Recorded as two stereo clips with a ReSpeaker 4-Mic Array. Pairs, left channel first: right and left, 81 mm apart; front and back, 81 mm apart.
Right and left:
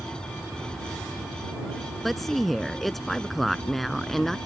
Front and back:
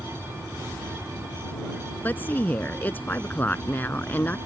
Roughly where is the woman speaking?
Ahead.